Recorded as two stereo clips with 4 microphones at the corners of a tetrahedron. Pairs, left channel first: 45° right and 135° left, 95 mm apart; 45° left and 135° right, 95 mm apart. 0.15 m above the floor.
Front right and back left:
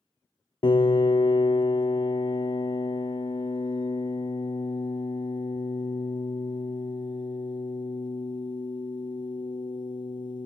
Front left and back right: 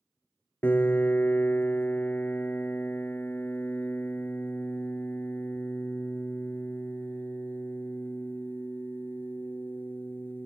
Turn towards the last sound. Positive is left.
turn(degrees=-20)